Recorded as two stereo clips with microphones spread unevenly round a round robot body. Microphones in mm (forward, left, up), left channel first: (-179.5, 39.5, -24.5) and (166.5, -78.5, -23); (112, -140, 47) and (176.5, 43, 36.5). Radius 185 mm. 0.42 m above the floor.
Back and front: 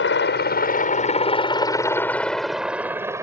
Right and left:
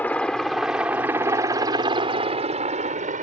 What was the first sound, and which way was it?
A helicopter, 170° left.